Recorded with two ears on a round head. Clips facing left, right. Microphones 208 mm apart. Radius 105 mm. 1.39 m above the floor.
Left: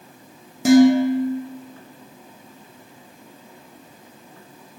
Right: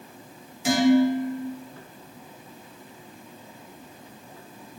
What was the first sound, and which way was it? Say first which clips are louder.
Dishes clattering: left 6 dB; 40° left (ahead or behind).